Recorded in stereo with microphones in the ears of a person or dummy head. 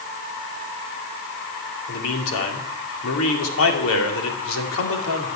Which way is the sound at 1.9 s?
75° left (ahead or behind).